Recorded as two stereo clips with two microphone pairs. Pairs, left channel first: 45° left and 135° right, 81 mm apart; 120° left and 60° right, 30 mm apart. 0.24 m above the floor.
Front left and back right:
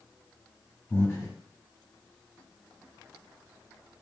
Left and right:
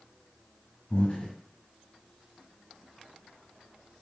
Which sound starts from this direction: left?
Breathing, at 0.9 s.